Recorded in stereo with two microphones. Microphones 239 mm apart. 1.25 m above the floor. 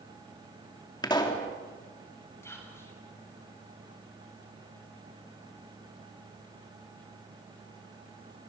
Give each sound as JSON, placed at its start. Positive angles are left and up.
{"t": 1.0, "sound": "a pop", "side_deg": 15, "distance_m": 3.0}
{"t": 2.4, "sound": "whispering", "side_deg": 10, "distance_m": 8.5}